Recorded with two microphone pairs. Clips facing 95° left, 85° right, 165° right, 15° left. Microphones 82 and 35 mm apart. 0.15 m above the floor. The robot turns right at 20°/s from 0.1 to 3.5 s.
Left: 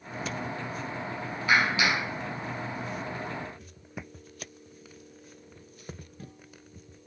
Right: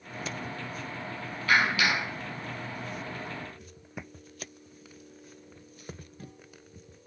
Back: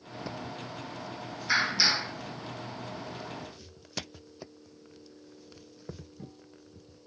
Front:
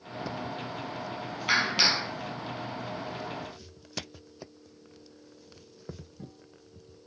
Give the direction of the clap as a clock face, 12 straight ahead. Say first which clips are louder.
Even, front 1 dB; 11 o'clock.